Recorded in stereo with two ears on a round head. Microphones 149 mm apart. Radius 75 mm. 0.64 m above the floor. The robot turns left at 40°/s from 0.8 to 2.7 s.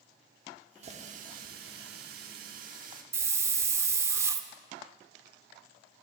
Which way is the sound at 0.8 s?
40° right.